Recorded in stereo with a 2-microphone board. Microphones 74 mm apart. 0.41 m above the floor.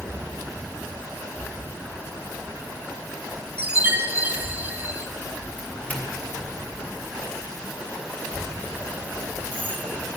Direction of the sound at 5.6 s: 20° left (ahead or behind).